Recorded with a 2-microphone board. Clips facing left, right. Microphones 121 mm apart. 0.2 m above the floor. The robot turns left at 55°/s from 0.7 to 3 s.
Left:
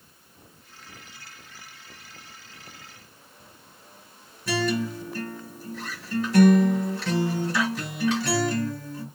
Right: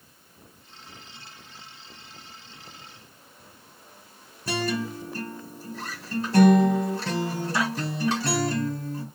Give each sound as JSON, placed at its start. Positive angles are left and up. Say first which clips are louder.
{"t": 4.5, "sound": "a guitar", "louder": "left 2 dB", "side_deg": -35, "distance_m": 1.4}